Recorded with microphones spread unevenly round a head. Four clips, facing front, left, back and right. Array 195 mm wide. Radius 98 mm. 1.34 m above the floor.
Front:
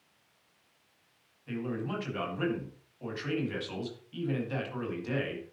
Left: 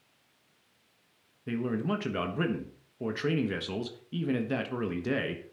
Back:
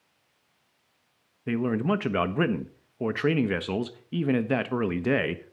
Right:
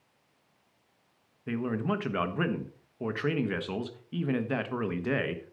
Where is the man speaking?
175° left, 1.4 m.